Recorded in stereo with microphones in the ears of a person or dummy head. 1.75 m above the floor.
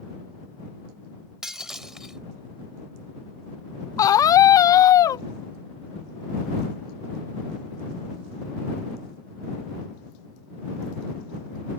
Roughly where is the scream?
Left.